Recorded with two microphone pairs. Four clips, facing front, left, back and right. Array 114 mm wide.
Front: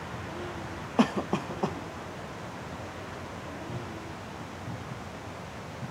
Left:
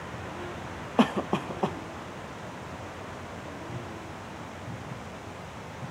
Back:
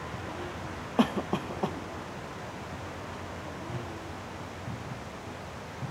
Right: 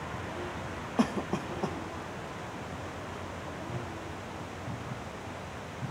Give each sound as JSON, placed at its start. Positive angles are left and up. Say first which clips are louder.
{"t": 1.0, "sound": "a cough", "louder": "left 5 dB, front 1 dB", "azimuth_deg": 75, "distance_m": 0.7}